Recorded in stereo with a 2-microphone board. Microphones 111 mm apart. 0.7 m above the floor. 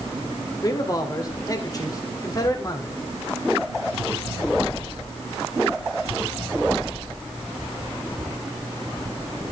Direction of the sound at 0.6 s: 35° left (ahead or behind).